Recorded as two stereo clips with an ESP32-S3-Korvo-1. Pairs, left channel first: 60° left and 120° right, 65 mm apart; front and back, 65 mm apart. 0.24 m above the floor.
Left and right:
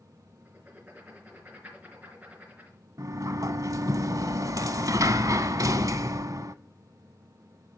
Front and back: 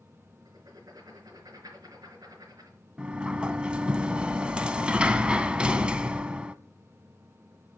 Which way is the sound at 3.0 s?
110° right.